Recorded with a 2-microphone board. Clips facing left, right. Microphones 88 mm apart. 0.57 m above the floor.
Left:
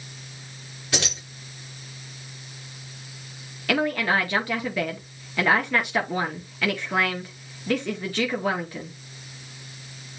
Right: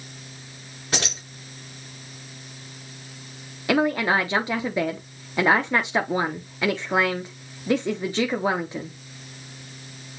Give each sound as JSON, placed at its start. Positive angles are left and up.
{"t": 0.9, "sound": "keys jangling", "side_deg": -35, "distance_m": 4.0}
{"t": 3.7, "sound": "a woman speaking", "side_deg": -25, "distance_m": 0.7}